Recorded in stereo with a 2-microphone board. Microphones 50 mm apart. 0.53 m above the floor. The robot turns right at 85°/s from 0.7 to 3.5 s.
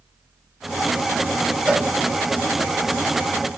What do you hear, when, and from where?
1.7 s a cowbell: 20° right (ahead or behind), 0.5 m